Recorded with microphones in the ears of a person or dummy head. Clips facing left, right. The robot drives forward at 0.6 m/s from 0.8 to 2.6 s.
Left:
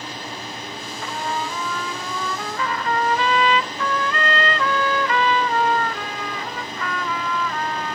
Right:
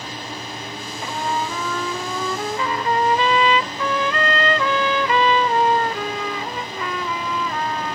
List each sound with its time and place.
1.0 s a trumpet: 15° right (ahead or behind), 1.0 m